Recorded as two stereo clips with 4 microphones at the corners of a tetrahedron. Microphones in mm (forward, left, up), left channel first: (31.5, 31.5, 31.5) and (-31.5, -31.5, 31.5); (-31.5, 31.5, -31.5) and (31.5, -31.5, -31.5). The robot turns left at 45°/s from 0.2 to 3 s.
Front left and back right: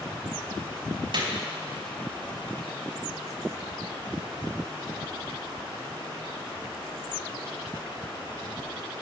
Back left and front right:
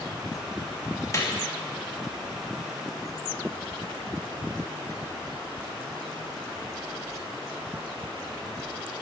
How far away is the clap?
About 2.5 m.